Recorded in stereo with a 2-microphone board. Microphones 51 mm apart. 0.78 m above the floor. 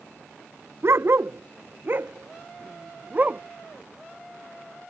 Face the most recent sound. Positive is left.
turn(degrees=-30)  # may be behind; listen again after turning